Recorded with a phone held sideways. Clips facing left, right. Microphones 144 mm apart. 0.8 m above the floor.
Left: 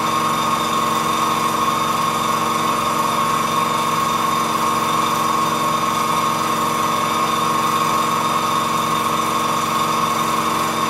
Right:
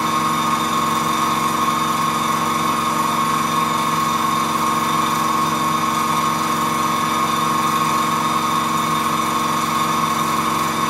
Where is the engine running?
5° left (ahead or behind), 1.6 m.